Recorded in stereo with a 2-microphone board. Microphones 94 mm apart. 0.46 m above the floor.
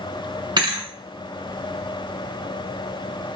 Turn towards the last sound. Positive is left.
turn(degrees=-55)  # may be behind; listen again after turning